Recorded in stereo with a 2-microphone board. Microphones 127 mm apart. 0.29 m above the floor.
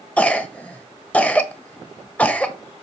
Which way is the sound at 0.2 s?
10° left (ahead or behind).